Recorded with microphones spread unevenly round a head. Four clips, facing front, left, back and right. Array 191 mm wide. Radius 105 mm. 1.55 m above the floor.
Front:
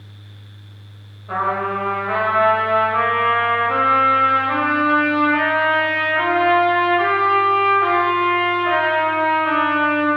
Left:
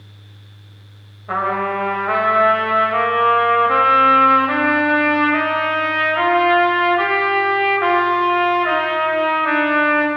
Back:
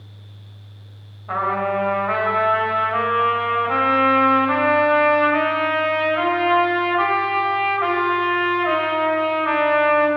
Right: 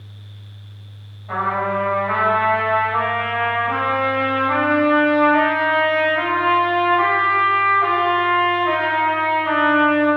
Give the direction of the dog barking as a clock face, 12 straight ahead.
No dog barking in this recording.